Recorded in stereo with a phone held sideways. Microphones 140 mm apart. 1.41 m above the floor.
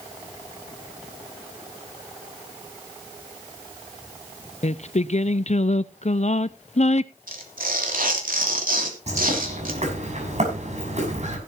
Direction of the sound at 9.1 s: 55° right (ahead or behind).